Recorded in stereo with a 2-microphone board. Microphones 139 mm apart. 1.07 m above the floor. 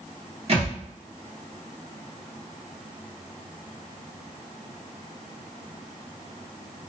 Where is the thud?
45° right (ahead or behind), 1.0 m.